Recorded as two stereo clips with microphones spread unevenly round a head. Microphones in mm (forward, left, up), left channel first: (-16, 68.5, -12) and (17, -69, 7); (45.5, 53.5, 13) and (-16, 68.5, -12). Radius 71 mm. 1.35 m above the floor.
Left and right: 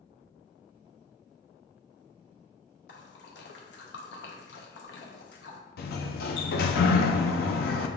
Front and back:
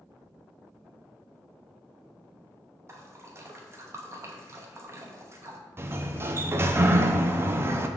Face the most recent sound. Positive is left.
turn(degrees=120)